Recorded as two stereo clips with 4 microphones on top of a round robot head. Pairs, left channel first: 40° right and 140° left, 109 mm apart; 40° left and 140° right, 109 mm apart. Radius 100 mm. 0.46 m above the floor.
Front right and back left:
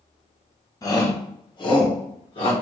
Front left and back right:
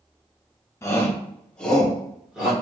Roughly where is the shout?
Ahead.